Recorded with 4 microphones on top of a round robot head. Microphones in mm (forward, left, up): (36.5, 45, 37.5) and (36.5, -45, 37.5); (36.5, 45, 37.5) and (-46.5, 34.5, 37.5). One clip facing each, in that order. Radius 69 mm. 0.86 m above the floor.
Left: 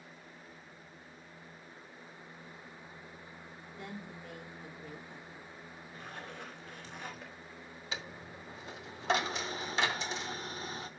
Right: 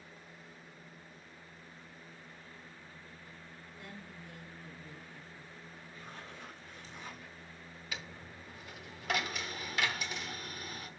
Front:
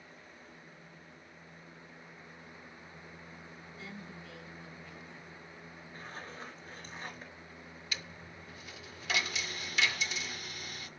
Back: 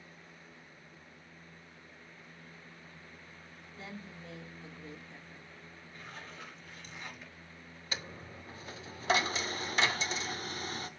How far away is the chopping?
No chopping in this recording.